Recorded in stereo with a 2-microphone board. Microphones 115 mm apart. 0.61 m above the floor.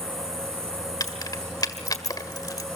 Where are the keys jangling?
35° left (ahead or behind), 1.5 m.